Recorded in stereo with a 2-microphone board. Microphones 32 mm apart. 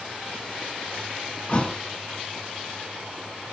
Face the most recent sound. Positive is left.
turn(degrees=30)  # may be behind; listen again after turning